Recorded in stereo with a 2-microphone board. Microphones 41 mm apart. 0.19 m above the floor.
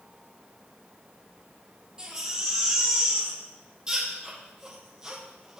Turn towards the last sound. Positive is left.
turn(degrees=-20)  # may be behind; listen again after turning